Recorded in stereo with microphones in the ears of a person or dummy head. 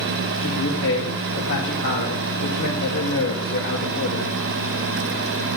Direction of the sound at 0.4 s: 65° left (ahead or behind).